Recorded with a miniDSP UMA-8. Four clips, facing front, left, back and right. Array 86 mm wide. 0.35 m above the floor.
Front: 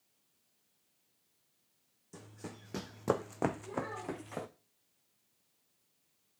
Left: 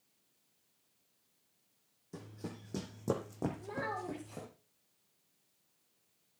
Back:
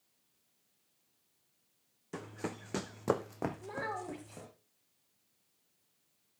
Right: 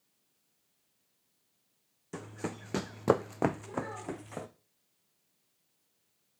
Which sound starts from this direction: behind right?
Running footsteps, at 2.1 s.